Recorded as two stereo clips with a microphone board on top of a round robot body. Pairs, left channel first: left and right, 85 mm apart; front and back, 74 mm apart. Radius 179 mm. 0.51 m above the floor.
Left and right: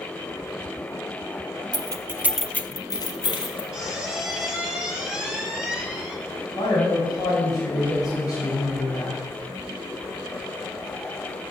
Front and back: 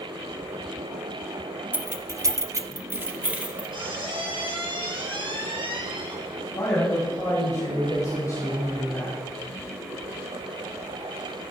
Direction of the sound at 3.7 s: 175° right.